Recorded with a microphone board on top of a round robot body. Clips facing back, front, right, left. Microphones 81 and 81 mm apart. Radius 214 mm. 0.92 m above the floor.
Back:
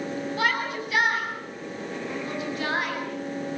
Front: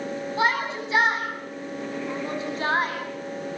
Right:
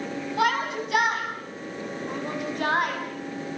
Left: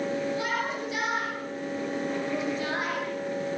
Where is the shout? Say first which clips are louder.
Front 3 dB, right 5 dB; 65° right, 9.5 m; by 3.6 s 55° right, 8.5 m.